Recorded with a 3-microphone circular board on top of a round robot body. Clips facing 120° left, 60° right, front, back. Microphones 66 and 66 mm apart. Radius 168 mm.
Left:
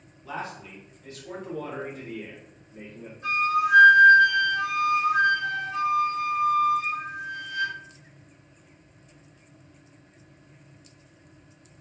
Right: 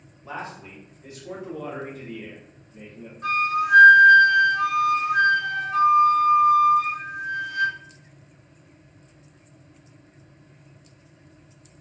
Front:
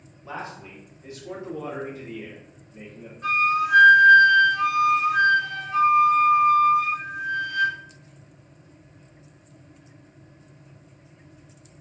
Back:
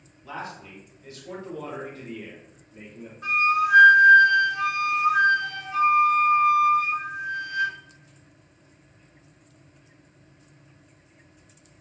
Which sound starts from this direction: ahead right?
A man speaking, at 0.2 s.